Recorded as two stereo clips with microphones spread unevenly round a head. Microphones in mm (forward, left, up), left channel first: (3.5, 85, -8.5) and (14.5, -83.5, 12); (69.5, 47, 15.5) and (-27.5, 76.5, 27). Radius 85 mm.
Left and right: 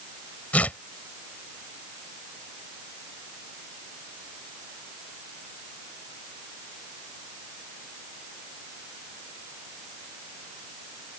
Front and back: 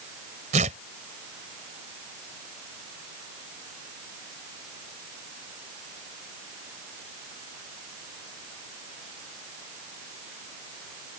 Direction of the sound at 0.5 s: Straight behind.